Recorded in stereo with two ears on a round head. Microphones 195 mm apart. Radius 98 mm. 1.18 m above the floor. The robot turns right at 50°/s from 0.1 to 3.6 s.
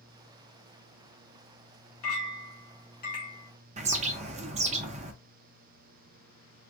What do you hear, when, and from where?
2.0 s a clink: 85° left, 1.4 m; by 3.5 s 160° left, 1.4 m
3.8 s a bird: 30° right (ahead or behind), 0.5 m